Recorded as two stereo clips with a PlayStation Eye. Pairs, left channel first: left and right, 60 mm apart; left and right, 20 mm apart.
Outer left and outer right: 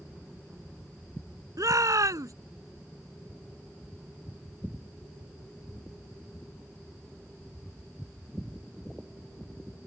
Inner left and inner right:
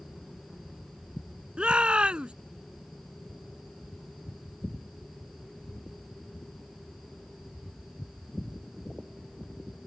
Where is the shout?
70° right (ahead or behind).